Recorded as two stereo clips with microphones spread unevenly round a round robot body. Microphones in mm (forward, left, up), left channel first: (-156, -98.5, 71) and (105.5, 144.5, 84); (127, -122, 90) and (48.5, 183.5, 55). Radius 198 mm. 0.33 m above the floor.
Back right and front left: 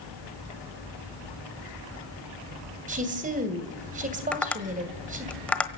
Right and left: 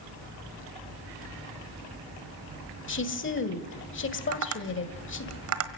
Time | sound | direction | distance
2.9 | a woman speaking | 25° right | 2.5 m
4.3 | tapping | 140° left | 1.3 m